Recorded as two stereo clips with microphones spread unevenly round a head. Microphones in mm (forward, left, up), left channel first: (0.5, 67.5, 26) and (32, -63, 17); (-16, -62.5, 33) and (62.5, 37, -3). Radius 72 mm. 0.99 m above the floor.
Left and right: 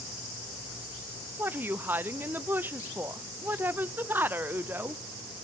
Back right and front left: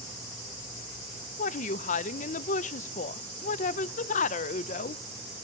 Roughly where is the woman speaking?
Behind right.